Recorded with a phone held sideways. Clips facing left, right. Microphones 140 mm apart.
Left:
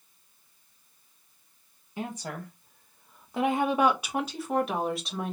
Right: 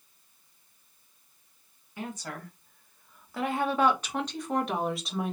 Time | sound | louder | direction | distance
2.0 | a woman speaking | left 2 dB | 25° left (ahead or behind) | 1.3 m